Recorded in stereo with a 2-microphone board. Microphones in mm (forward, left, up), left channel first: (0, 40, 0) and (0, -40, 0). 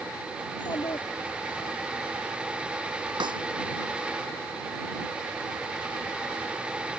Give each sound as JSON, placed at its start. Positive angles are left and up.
{"t": 0.5, "sound": "a child speaking", "side_deg": 65}
{"t": 3.2, "sound": "a snare drum", "side_deg": -80}